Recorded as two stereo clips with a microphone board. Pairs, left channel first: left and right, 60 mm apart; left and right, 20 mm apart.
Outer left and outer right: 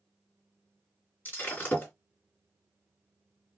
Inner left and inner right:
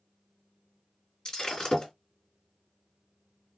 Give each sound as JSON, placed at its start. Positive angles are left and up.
{"t": 1.2, "sound": "breaking glass", "side_deg": 30, "distance_m": 2.0}